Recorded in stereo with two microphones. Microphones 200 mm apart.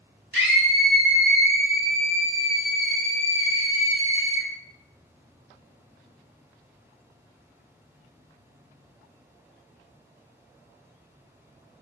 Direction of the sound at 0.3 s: 65° right (ahead or behind).